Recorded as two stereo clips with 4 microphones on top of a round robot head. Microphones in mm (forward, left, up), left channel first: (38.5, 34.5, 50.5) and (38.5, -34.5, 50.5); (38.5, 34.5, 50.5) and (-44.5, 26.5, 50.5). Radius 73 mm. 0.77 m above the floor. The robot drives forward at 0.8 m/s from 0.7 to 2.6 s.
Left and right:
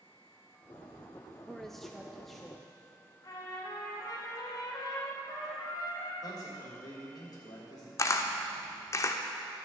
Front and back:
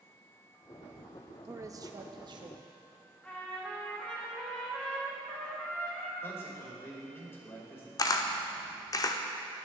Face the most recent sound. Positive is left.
turn(degrees=50)